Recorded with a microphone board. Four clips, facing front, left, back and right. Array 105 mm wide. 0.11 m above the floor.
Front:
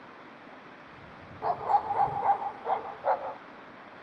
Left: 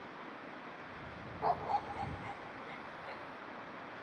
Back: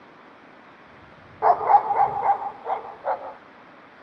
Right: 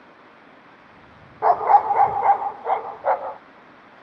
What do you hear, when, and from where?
1.4 s a dog barking: 135° right; by 3.4 s 90° right